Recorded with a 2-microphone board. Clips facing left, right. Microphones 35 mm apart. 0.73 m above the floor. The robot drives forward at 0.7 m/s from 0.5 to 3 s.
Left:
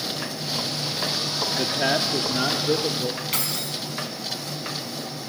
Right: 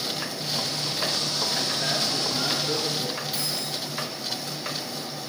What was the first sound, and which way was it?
A man speaking, 40° left (ahead or behind).